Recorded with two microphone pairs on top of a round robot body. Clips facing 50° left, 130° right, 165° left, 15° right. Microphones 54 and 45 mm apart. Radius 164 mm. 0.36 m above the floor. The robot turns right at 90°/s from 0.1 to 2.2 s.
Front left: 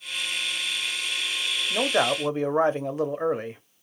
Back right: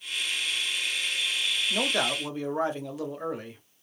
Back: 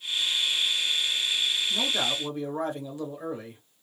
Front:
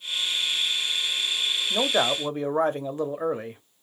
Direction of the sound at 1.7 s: 25° right.